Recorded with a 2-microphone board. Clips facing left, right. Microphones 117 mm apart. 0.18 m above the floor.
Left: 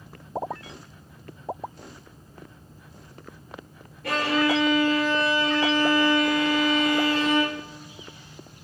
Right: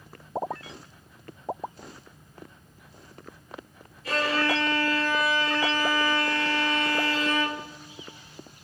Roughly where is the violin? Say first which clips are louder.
Left 3 dB; left.